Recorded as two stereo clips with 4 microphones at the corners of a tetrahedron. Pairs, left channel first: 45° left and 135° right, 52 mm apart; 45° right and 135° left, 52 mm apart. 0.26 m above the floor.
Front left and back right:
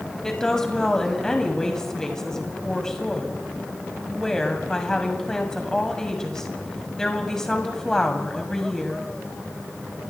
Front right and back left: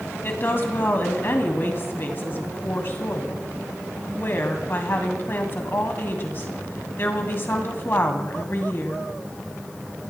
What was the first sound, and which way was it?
A woman speaking, 30° right.